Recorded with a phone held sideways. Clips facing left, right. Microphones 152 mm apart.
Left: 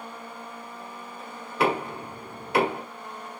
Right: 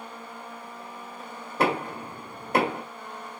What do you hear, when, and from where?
1.6 s knocking: 40° right (ahead or behind), 2.5 m